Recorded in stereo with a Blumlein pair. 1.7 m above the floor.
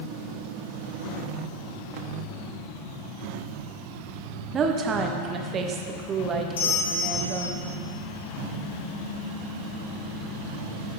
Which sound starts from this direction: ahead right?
A woman speaking, at 4.5 s.